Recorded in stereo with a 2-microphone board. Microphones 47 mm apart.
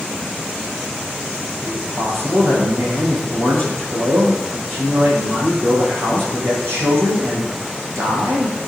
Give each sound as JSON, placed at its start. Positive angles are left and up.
{"t": 1.6, "sound": "a man speaking", "side_deg": -55, "distance_m": 8.5}